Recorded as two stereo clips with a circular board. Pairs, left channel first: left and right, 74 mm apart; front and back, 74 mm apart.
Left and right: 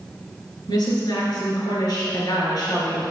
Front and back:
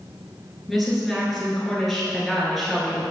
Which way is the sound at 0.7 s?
90° left.